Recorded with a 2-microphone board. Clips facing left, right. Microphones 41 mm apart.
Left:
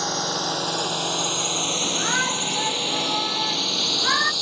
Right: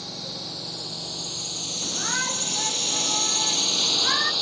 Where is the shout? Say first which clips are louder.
Left 3 dB; 15° left (ahead or behind).